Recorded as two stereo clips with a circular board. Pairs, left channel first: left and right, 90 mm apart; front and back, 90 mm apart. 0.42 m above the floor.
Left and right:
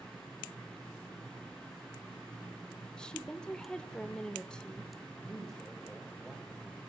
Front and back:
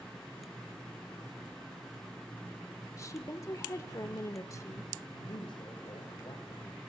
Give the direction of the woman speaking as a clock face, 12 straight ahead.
12 o'clock.